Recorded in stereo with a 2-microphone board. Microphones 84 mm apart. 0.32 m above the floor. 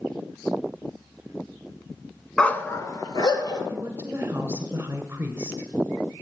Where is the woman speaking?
30° right (ahead or behind), 1.6 m.